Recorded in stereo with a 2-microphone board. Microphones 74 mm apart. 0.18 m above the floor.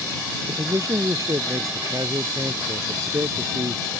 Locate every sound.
0.5 s a man speaking: 50° right (ahead or behind)